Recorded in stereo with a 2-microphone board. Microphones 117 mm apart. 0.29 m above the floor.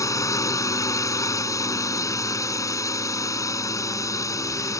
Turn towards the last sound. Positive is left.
turn(degrees=25)  # may be behind; listen again after turning